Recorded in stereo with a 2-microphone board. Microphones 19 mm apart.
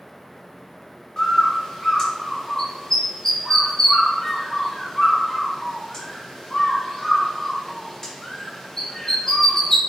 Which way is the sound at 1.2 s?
25° left (ahead or behind).